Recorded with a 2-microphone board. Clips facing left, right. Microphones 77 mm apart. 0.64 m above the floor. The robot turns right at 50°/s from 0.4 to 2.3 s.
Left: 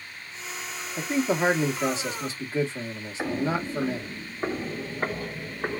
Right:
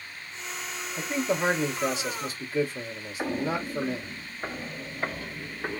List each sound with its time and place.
1.0 s a man speaking: 20° left (ahead or behind), 1.3 m; by 4.1 s 25° left (ahead or behind), 1.3 m
3.2 s footsteps: 15° left (ahead or behind), 0.8 m; by 5.8 s 55° left (ahead or behind), 1.9 m